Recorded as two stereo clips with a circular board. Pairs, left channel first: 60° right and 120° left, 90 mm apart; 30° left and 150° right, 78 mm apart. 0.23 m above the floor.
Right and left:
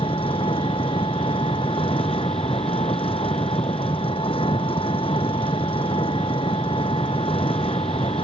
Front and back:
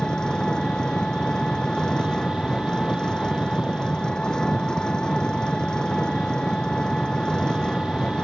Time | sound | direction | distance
0.0 | an engine running | 50° right | ?